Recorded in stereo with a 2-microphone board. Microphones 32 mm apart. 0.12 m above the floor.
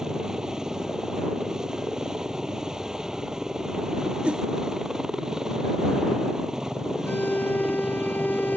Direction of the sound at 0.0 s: 20° right (ahead or behind).